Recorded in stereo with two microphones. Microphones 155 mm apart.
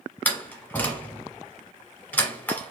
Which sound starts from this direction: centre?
A door slam, at 0.2 s.